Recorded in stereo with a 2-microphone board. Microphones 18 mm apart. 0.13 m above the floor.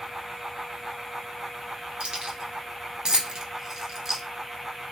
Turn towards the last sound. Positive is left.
turn(degrees=-15)  # may be behind; listen again after turning